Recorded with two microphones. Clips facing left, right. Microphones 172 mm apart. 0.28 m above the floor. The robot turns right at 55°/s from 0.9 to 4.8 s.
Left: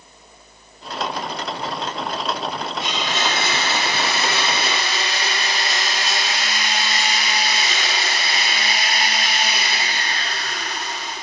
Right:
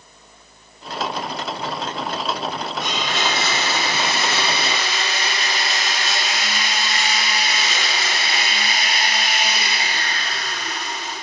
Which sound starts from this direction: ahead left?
A blender, at 2.8 s.